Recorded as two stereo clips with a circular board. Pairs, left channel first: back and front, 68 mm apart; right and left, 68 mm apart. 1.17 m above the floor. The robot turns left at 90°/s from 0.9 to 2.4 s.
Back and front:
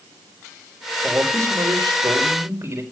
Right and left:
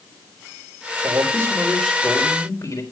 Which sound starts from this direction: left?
A man speaking, at 1.0 s.